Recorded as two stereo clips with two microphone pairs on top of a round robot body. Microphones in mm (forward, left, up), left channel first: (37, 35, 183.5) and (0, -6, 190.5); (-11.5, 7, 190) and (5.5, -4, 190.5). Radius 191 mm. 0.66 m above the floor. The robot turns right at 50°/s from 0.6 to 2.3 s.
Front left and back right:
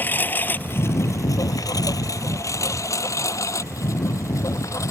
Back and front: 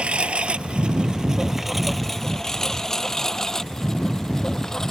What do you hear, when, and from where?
0.0 s a lawn mower: 10° right; by 4.9 s 80° left